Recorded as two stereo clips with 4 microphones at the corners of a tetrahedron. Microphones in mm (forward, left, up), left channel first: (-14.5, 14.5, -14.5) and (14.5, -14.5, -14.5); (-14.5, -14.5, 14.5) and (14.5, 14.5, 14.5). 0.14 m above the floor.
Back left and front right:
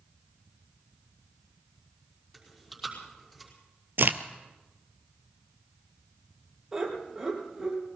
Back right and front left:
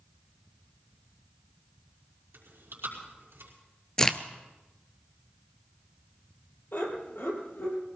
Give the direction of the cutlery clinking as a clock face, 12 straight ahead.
I don't hear cutlery clinking.